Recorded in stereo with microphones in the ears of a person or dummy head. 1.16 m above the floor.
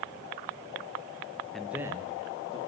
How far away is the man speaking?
About 0.6 m.